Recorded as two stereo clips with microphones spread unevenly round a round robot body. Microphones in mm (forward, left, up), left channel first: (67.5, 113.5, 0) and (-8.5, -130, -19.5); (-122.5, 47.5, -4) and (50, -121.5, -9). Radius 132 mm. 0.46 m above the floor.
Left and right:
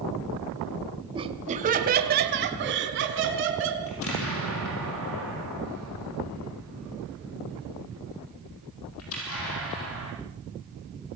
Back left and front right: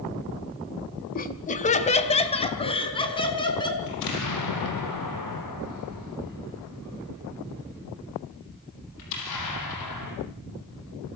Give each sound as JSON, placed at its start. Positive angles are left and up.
{"t": 1.1, "sound": "laughter", "azimuth_deg": -175, "distance_m": 1.8}
{"t": 3.9, "sound": "an explosion", "azimuth_deg": 115, "distance_m": 5.5}